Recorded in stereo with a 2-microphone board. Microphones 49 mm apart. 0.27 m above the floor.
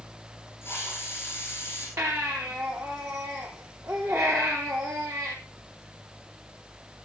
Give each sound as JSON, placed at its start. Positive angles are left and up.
{"t": 0.6, "sound": "a hiss", "side_deg": 50, "distance_m": 9.5}
{"t": 2.0, "sound": "a baby crying", "side_deg": -75, "distance_m": 3.5}